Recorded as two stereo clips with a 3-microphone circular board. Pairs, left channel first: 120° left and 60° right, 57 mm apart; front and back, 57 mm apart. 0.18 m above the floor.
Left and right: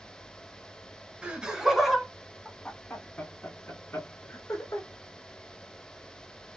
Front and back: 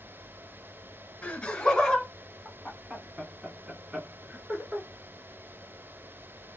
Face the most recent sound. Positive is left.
turn(degrees=120)